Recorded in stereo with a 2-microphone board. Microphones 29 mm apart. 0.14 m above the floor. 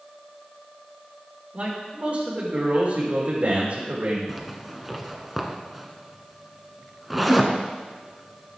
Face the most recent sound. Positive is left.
turn(degrees=-5)  # may be behind; listen again after turning